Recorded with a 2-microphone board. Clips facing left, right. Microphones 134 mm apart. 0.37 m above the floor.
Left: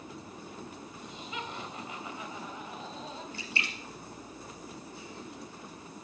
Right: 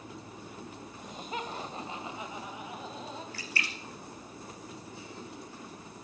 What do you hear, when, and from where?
1.0 s laughter: 50° right (ahead or behind), 2.5 m; by 3.2 s centre (ahead or behind), 3 m
3.3 s a splash: 25° left (ahead or behind), 2.5 m